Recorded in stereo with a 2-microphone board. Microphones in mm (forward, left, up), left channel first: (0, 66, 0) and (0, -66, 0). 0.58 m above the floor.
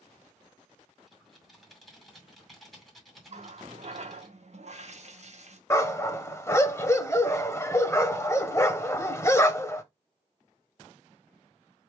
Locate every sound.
1.1 s typing on a keyboard: centre (ahead or behind), 2 m
3.3 s a running tap: 55° right (ahead or behind), 0.7 m
5.7 s a dog barking: 20° left (ahead or behind), 0.7 m